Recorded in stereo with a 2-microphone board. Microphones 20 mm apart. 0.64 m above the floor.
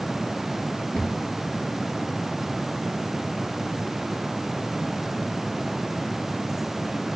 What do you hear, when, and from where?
0.9 s a cupboard door: 50° left (ahead or behind), 5 m